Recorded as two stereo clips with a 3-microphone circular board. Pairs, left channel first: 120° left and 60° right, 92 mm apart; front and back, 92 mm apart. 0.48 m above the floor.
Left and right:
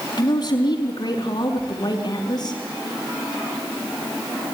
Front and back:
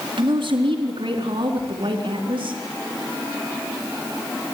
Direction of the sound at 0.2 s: 160° left.